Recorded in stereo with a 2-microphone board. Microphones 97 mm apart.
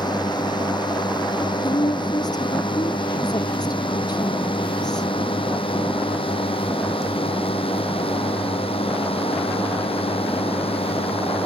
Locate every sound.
0.0 s a drone: 50° left (ahead or behind); by 11.5 s 80° left
1.6 s a woman speaking: 45° left (ahead or behind)